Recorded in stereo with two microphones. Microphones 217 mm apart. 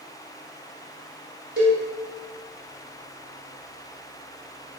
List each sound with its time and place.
1.6 s a cowbell: 45° right (ahead or behind), 2.0 m